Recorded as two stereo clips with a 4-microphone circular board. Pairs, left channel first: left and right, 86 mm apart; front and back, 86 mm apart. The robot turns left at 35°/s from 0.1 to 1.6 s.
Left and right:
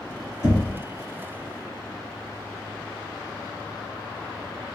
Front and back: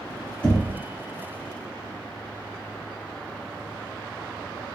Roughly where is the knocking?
Ahead left.